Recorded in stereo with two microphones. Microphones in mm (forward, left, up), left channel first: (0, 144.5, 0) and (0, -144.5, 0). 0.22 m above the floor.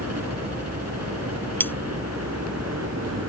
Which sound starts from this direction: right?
A helicopter, at 0.0 s.